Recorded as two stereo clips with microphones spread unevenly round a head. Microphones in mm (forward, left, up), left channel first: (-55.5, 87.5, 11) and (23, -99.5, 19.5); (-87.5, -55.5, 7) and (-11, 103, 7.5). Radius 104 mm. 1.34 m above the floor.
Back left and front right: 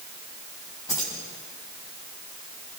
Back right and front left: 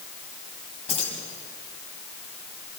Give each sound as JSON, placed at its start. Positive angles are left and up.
{"t": 0.9, "sound": "keys jangling", "azimuth_deg": -170, "distance_m": 7.5}